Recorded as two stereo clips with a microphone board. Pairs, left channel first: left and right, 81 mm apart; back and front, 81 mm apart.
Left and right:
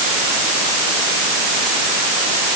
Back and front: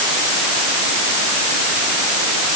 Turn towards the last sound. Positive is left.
No sound to turn to.